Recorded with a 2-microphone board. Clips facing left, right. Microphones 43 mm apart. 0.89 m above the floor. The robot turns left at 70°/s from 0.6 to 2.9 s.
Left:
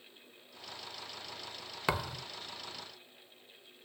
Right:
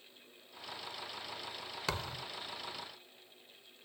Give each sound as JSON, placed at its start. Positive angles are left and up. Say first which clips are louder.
{"t": 1.9, "sound": "a thud", "louder": "left 5 dB", "side_deg": 25}